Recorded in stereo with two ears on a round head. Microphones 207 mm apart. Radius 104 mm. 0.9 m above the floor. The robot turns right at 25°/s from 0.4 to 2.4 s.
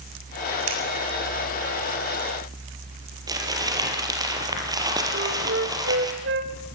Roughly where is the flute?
Right.